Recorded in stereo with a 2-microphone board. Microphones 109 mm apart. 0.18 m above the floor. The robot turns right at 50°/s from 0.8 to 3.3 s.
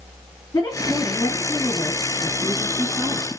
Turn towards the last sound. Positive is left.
turn(degrees=-100)